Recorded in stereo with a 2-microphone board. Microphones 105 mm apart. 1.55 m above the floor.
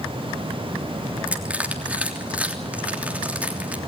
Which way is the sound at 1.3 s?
15° right (ahead or behind).